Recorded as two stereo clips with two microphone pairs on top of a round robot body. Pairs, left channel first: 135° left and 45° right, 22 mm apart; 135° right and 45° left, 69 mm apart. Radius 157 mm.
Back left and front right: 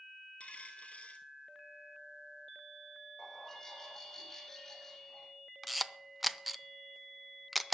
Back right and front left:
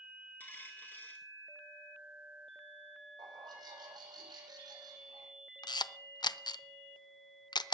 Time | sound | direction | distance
0.4 | a dropped coin | 160° left | 0.5 m
3.2 | a bird | 50° left | 8.5 m
5.6 | a camera shutter | 140° right | 0.7 m